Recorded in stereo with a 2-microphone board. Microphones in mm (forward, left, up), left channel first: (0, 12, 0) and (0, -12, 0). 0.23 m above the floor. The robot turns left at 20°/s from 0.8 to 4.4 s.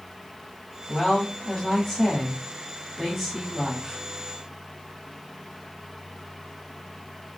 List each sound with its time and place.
0.9 s a woman speaking: 15° left (ahead or behind), 1.3 m; by 4.0 s 5° right (ahead or behind), 1.3 m